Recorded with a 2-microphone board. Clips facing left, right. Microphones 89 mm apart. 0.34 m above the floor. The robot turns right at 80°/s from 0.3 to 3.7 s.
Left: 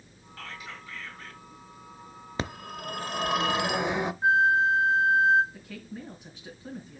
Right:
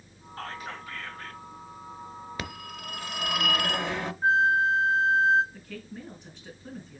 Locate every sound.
0.4 s whispering: 135° right, 1.7 m; by 1.4 s 50° right, 1.7 m
2.4 s a phone ringing: 50° left, 0.5 m; by 4.1 s 155° left, 0.5 m
4.2 s a flute: 15° left (ahead or behind), 1.1 m
5.5 s a woman speaking: 10° left (ahead or behind), 2.5 m